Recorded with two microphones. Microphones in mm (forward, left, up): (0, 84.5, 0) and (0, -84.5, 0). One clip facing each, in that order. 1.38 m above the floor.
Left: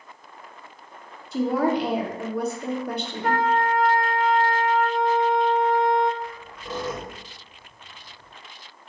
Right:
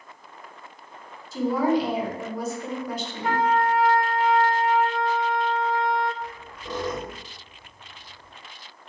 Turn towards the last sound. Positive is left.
turn(degrees=5)  # may be behind; listen again after turning